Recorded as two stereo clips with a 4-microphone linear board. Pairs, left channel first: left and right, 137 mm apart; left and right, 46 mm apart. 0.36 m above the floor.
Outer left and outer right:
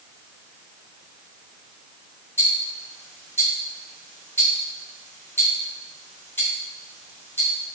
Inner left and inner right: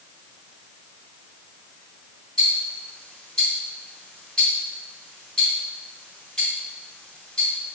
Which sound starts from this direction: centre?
Ticking, at 2.4 s.